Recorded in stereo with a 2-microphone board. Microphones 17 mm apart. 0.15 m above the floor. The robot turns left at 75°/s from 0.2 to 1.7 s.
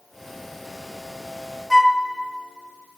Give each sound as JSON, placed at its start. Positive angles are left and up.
{"t": 1.7, "sound": "a flute", "side_deg": 15, "distance_m": 1.1}